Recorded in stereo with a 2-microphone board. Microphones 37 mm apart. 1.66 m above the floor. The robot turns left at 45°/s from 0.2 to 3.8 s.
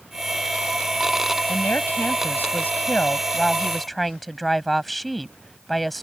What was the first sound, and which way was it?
A woman speaking, 105° left.